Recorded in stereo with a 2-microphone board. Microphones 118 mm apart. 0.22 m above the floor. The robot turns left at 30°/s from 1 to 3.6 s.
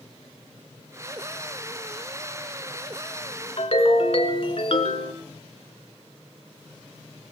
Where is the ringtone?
60° left (ahead or behind), 1.7 m.